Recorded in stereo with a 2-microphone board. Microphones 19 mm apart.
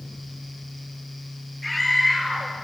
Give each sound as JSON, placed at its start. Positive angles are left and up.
{"t": 1.6, "sound": "a scream", "side_deg": -10, "distance_m": 4.0}